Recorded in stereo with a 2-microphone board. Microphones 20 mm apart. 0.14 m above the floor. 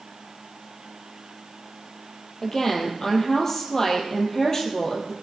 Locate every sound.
2.4 s a woman speaking: 20° left (ahead or behind), 3.5 m